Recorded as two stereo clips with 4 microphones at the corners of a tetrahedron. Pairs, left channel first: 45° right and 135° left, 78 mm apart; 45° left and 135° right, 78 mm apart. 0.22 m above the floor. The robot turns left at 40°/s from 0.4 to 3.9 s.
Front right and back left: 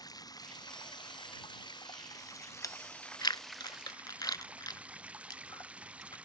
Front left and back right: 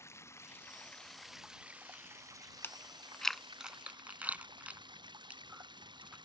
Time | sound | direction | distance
0.0 | running water | 10° right | ?
2.6 | chewing | 15° right | ?